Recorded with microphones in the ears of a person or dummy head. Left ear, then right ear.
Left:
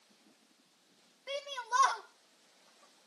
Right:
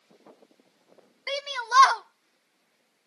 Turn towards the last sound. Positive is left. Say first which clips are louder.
# right 8 dB
turn(degrees=-70)  # may be behind; listen again after turning